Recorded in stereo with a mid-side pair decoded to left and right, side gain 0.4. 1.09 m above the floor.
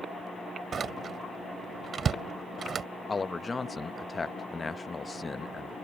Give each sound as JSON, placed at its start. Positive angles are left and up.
{"t": 0.7, "sound": "a door slam", "azimuth_deg": -55}
{"t": 3.1, "sound": "a man speaking", "azimuth_deg": 30}